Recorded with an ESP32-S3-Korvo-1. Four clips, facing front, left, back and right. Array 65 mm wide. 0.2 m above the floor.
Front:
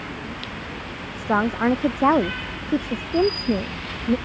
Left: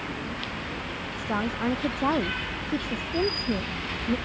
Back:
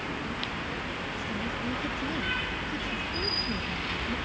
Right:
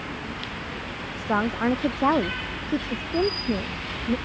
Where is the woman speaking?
20° right; by 4.2 s 5° right.